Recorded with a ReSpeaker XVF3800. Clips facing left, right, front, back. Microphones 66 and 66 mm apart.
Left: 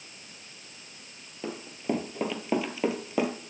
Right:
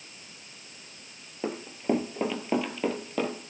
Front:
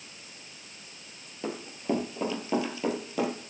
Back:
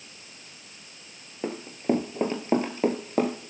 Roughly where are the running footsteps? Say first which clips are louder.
Right 3 dB, back 4 dB; behind right.